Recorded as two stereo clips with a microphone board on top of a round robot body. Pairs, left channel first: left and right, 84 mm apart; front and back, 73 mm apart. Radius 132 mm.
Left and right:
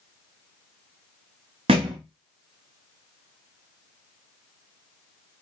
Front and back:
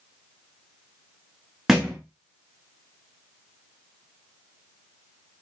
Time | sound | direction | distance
1.7 | a thud | 95° right | 0.5 m